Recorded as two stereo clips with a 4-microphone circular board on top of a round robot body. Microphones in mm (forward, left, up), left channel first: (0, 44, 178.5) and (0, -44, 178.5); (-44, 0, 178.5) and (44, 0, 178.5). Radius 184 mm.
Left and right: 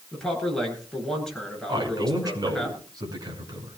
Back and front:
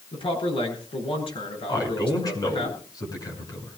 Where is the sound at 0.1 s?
175° left, 8.5 m.